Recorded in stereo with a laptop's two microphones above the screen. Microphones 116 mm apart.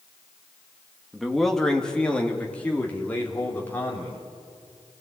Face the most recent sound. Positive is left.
turn(degrees=20)  # may be behind; listen again after turning